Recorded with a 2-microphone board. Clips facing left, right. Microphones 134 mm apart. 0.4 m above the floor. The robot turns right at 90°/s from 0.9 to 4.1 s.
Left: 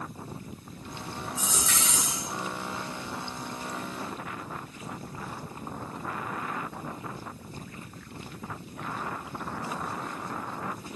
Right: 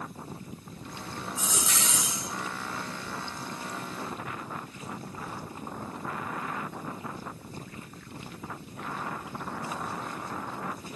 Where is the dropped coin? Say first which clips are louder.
Even; 175° left, 1.1 m; by 2.2 s 105° right, 1.1 m.